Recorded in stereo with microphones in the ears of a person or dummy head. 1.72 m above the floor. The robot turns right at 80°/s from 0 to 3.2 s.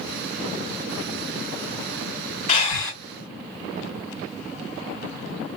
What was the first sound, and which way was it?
Breathing, 135° left.